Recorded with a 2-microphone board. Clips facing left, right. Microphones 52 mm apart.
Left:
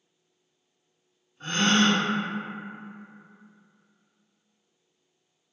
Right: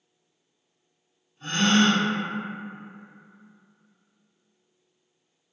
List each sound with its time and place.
1.4 s a gasp: 50° left (ahead or behind), 1.2 m